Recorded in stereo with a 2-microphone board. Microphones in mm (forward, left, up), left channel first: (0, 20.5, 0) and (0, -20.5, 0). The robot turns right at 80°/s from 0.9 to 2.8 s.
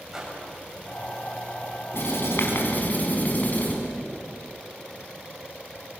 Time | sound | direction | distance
0.1 | a whoosh | 10° right (ahead or behind) | 8 m
1.9 | writing | 70° left | 5.5 m